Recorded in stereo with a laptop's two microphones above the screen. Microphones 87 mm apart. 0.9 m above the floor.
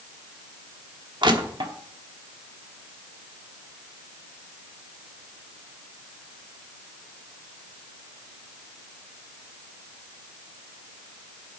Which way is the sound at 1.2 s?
60° right (ahead or behind).